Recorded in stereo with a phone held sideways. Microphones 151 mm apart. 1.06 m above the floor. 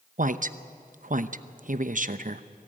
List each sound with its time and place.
0.2 s a woman speaking: 60° right (ahead or behind), 0.8 m